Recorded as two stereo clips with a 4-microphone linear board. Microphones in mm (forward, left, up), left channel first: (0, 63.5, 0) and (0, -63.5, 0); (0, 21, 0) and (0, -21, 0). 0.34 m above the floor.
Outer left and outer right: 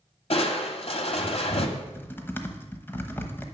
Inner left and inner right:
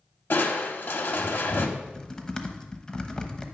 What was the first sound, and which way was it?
Crushing, 60° left (ahead or behind).